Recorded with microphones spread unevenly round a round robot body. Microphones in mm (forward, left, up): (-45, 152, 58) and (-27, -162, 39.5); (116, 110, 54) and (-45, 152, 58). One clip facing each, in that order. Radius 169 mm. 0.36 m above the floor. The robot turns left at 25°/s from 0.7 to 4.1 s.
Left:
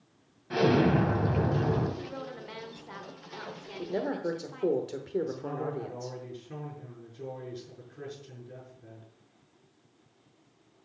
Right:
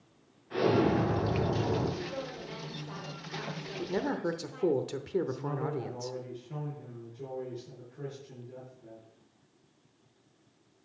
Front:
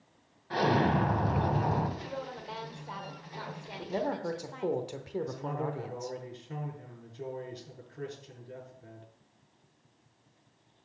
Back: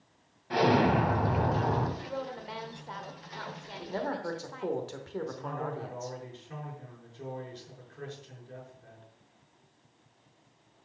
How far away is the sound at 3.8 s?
About 0.9 m.